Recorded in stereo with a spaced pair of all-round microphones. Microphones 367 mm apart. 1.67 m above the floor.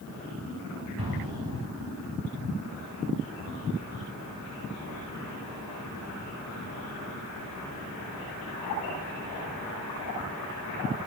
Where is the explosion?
80° right, 8.5 m.